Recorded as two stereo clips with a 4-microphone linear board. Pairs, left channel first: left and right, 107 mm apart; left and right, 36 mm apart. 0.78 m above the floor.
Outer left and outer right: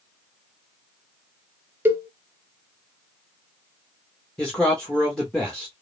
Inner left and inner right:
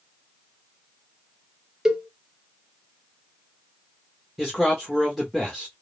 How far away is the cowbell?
About 0.6 m.